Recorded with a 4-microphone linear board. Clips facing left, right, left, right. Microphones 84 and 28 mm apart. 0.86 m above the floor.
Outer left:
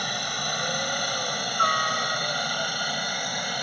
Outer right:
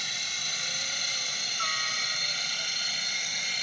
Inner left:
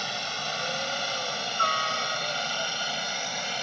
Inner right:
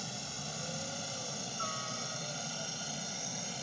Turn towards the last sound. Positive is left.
turn(degrees=50)  # may be behind; listen again after turning